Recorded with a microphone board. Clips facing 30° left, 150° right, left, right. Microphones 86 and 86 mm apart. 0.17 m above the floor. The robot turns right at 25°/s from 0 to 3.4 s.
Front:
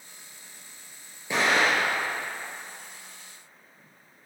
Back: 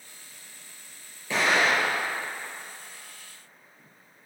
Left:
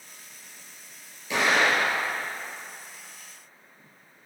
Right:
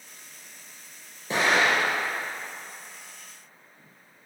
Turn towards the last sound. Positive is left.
turn(degrees=10)